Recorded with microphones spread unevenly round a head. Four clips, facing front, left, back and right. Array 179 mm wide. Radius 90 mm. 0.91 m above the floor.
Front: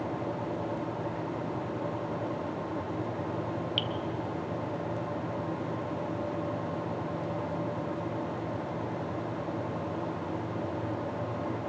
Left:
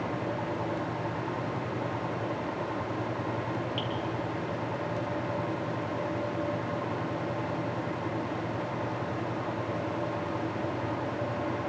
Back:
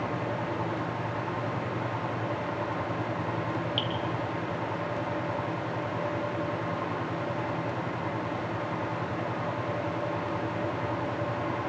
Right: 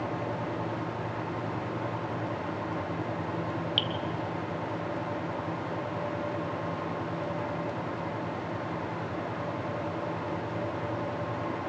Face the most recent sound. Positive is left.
turn(degrees=-30)